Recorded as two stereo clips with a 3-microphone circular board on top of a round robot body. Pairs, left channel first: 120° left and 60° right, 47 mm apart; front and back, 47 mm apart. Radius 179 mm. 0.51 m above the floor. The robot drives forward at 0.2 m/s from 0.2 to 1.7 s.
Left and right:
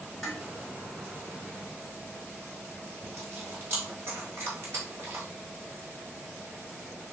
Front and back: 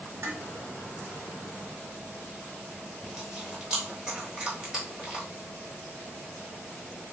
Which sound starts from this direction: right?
Chewing, at 3.0 s.